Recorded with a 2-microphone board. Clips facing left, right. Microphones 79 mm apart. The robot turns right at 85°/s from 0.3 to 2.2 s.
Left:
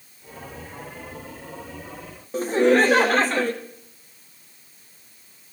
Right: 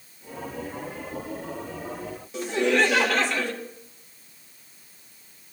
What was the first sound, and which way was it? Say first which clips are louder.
Laughter: left 5 dB; 40° left (ahead or behind).